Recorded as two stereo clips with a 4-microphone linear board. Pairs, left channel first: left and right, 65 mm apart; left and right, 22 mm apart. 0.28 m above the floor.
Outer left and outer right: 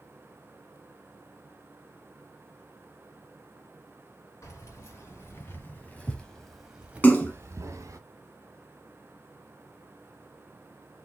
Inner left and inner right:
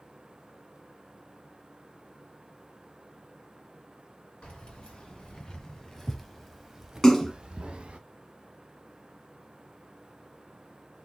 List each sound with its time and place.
4.4 s keys jangling: 50° left (ahead or behind), 2.5 m; by 8.0 s 55° right (ahead or behind), 1.5 m
7.0 s a splash: 30° left (ahead or behind), 1.1 m